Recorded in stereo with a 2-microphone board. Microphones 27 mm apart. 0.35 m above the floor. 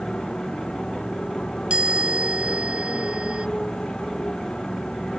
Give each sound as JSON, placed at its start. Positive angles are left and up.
{"t": 0.0, "sound": "a motorcycle", "side_deg": 30}
{"t": 1.7, "sound": "a chime", "side_deg": -50}